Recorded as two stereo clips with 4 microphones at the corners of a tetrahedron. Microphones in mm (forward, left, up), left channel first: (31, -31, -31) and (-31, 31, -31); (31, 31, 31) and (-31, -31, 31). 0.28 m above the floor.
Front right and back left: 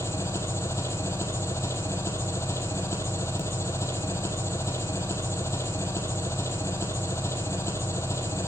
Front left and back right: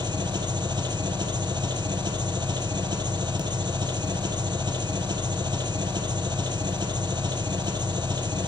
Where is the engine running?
105° right, 2 m.